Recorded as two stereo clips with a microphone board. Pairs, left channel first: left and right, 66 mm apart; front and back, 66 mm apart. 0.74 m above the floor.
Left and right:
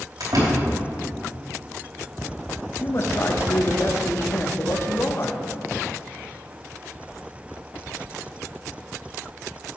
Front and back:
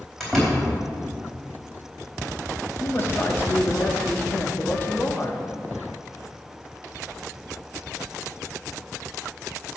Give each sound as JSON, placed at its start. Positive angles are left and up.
{"t": 0.2, "sound": "a door slam", "azimuth_deg": -85, "distance_m": 4.0}
{"t": 2.8, "sound": "a man speaking", "azimuth_deg": 55, "distance_m": 1.0}